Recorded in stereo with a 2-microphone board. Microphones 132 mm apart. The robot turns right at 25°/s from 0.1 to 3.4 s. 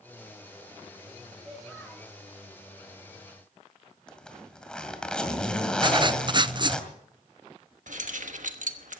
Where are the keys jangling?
70° right (ahead or behind), 1.2 m.